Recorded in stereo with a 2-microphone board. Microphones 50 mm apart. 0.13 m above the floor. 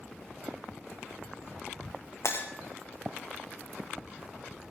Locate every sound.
2.2 s breaking glass: 70° left (ahead or behind), 2 m